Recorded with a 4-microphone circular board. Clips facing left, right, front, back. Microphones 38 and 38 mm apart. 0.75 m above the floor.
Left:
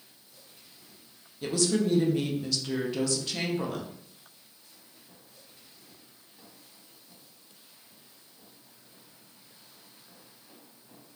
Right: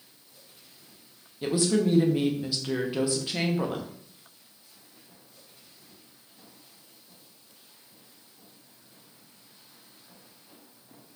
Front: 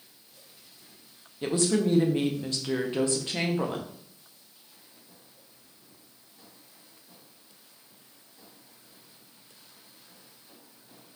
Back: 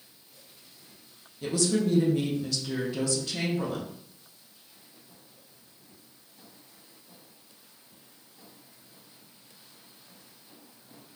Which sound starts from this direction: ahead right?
A woman speaking, at 1.4 s.